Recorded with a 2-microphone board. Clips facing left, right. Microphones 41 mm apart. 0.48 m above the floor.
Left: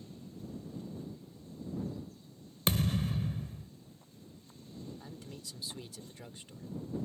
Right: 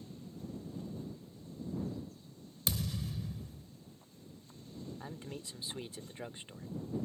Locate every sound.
2.7 s a thud: 50° left (ahead or behind)
5.0 s a man speaking: 30° right (ahead or behind)